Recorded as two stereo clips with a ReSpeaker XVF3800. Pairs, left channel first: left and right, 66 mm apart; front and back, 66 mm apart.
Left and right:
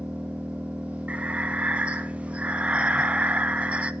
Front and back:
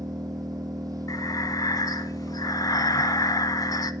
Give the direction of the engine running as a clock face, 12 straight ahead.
5 o'clock.